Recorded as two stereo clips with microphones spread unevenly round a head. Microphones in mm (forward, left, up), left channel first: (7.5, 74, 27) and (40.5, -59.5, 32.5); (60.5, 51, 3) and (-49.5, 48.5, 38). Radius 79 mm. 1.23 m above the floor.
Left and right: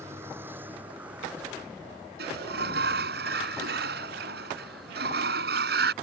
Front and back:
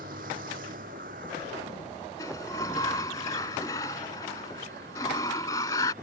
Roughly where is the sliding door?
Right.